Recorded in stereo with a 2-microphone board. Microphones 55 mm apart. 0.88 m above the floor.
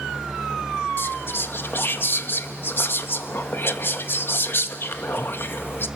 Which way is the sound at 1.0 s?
45° left (ahead or behind).